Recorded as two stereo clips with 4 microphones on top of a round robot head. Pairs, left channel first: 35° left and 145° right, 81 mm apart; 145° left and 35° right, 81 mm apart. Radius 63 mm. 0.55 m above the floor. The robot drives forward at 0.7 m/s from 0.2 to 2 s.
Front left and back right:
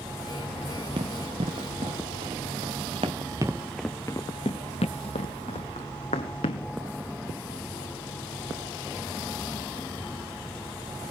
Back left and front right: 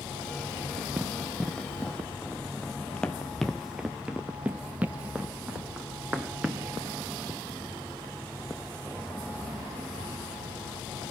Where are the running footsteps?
115° right, 1.2 m; by 6.7 s 40° left, 1.6 m.